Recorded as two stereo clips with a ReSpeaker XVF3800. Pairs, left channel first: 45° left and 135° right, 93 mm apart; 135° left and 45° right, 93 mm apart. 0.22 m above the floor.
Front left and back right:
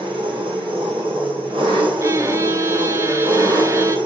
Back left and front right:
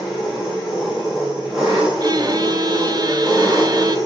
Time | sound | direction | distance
0.0 | an engine running | 130° right | 4.5 m
2.0 | a violin | 80° right | 0.6 m